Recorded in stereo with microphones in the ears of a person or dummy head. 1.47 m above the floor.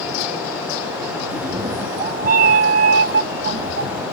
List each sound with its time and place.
1.3 s a cat meowing: 10° right (ahead or behind); by 4.0 s 50° right (ahead or behind)